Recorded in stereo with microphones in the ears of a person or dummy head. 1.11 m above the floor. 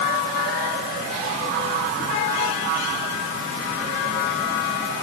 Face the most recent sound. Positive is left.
No sound to turn to.